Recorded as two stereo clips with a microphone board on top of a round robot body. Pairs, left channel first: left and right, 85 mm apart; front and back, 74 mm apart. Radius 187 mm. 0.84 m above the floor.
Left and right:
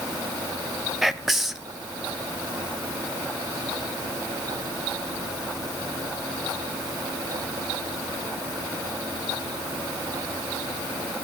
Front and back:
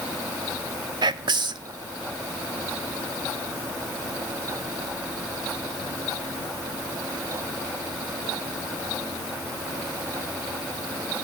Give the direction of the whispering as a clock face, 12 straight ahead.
6 o'clock.